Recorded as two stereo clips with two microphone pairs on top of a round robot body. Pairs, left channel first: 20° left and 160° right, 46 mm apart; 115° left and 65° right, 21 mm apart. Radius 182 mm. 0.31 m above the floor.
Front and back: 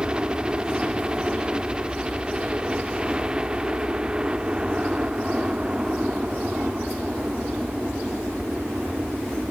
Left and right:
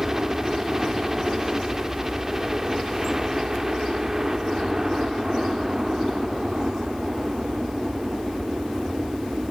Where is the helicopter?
105° right.